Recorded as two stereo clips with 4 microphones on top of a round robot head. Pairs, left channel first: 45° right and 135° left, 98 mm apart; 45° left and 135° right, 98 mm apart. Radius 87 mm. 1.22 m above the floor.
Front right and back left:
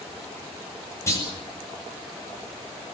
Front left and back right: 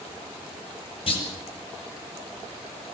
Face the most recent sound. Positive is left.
turn(degrees=15)